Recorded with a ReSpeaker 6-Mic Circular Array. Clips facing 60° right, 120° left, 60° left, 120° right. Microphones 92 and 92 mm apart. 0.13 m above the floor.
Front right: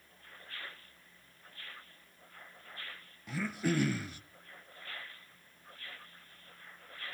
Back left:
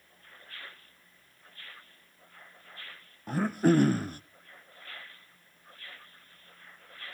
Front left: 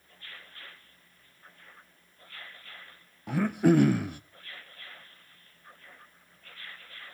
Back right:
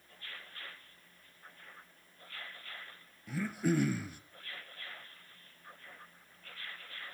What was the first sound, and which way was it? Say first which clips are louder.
Throat clearing: back left 9 dB, front left 10 dB; 80° left.